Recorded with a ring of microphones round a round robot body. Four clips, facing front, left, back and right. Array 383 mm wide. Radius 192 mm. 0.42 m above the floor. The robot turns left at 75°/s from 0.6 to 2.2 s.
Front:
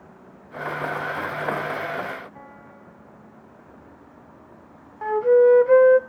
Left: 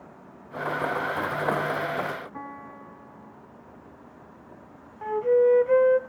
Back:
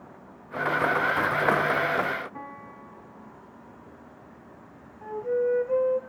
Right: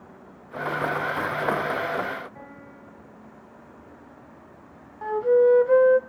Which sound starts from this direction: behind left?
A piano, at 2.3 s.